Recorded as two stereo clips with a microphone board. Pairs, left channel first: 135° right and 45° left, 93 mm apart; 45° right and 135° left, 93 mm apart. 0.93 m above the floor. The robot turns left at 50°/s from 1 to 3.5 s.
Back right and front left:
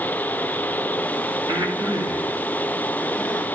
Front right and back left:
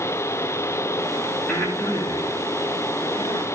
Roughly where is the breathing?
Ahead left.